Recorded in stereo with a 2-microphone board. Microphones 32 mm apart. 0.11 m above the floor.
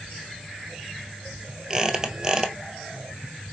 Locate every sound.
1.7 s a squeak: 20° right (ahead or behind), 0.9 m